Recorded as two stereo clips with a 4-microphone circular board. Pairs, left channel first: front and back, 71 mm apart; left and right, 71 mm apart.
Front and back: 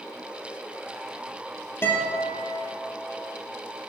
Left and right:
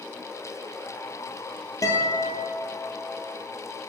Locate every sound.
1.8 s a guitar: 55° left, 2 m